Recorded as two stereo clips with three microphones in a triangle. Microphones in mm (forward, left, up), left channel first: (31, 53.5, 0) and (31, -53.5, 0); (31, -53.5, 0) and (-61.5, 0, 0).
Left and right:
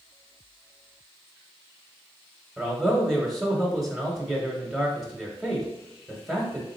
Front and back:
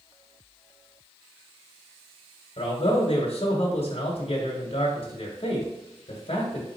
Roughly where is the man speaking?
Ahead.